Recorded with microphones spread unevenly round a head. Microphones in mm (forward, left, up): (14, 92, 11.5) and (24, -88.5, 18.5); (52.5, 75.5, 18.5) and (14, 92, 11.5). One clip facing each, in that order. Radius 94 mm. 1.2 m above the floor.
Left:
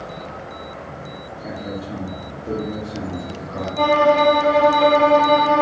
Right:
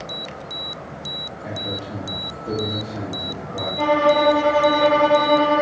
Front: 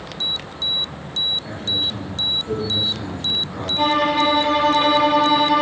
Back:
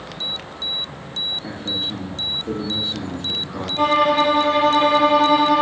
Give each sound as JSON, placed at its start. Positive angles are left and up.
{"t": 1.4, "sound": "a man speaking", "azimuth_deg": 170, "distance_m": 1.6}
{"t": 3.8, "sound": "a violin", "azimuth_deg": 80, "distance_m": 2.0}